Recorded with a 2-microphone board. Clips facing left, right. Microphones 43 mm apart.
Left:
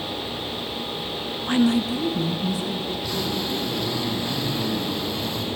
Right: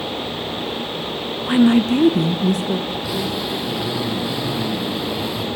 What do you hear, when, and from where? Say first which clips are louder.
1.4 s a woman speaking: right 6 dB; 5° right (ahead or behind), 0.7 m; by 2.8 s 60° right (ahead or behind), 1.3 m
2.9 s a zipper: right 3 dB; 10° right (ahead or behind), 5 m